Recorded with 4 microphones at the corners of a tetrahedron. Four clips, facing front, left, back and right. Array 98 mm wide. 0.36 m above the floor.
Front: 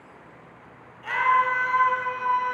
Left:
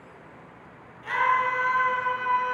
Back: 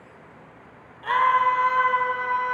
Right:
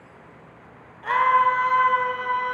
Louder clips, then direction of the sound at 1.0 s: Right 5 dB, back 2 dB; 115° right.